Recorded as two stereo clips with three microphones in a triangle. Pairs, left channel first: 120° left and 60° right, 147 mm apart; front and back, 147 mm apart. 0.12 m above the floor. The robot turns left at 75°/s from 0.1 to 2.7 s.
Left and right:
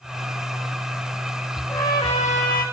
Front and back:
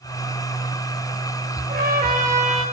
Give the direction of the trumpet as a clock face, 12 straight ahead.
5 o'clock.